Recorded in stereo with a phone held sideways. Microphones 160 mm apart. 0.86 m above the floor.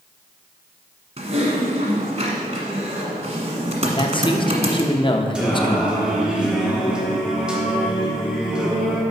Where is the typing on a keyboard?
45° right (ahead or behind), 1.2 m.